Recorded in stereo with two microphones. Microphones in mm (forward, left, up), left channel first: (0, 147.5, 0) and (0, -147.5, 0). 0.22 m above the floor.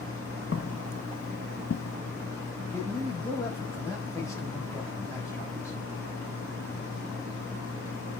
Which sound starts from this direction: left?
Footsteps, at 0.5 s.